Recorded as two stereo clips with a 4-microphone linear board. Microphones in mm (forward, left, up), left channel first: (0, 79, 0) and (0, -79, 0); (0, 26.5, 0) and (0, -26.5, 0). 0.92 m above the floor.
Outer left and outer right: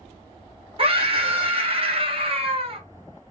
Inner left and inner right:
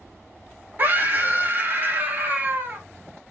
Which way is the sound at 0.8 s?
35° right (ahead or behind).